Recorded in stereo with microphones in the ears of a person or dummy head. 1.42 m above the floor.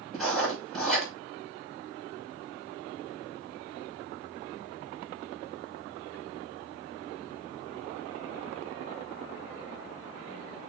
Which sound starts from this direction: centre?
Writing, at 0.1 s.